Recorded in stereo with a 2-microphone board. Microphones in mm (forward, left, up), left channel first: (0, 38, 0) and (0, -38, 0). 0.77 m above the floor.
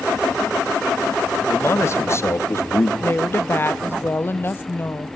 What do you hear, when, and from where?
1.5 s a man speaking: 35° left (ahead or behind), 1.5 m
3.0 s a woman speaking: 30° left (ahead or behind), 0.6 m